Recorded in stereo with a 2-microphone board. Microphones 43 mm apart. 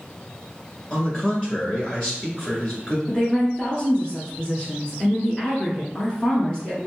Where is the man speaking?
20° left (ahead or behind), 1.5 m.